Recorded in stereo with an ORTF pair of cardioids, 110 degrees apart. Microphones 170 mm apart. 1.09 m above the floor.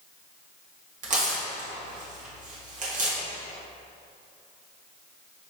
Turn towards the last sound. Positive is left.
turn(degrees=-50)